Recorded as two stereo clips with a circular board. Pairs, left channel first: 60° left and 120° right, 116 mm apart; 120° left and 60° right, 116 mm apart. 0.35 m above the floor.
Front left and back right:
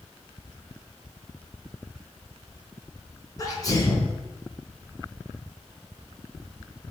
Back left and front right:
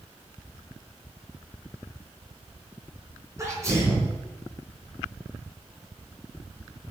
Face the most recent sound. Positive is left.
turn(degrees=5)